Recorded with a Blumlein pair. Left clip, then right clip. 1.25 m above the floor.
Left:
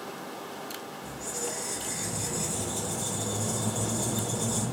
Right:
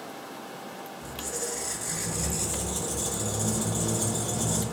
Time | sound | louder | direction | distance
1.0 | a squeak | right 2 dB | 55° right | 0.7 m